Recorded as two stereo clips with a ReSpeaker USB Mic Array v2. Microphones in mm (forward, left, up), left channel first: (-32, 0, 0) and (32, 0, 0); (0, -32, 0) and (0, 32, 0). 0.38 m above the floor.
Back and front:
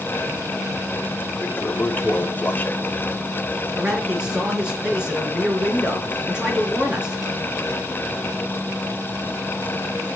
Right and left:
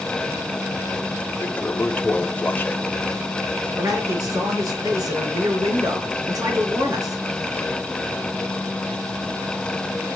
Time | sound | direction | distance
1.4 | a toilet flushing | 135° right | 1.1 m
3.8 | a man speaking | 75° left | 4.5 m